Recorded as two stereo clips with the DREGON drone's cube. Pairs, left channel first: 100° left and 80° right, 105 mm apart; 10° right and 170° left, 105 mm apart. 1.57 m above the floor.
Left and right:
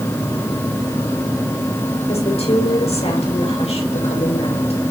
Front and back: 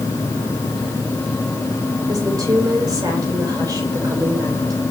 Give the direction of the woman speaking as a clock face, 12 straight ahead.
8 o'clock.